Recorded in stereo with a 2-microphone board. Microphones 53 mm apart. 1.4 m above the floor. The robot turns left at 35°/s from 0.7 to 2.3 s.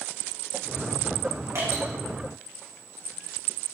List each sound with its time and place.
1.6 s dripping: 70° right (ahead or behind), 2.5 m; by 1.8 s 80° right, 2.5 m